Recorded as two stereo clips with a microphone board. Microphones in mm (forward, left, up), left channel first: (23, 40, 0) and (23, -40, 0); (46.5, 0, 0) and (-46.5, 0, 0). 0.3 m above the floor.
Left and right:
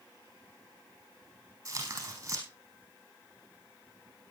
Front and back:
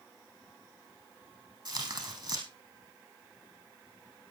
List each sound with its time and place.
1.6 s tearing paper: 145° right, 4 m